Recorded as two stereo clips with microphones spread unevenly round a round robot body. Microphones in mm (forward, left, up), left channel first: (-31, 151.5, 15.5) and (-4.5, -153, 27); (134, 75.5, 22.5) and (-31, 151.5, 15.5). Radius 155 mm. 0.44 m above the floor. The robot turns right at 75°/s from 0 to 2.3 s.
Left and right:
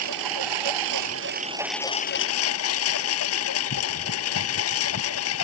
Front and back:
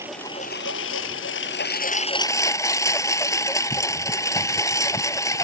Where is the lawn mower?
125° right; by 5.5 s 50° left.